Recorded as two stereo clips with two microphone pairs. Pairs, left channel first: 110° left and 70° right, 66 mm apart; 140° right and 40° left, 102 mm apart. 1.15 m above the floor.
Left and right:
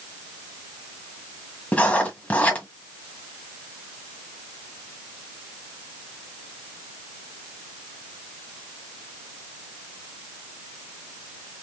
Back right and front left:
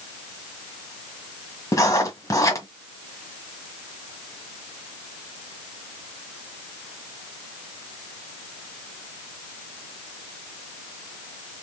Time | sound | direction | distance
1.7 | writing | 170° left | 1.5 m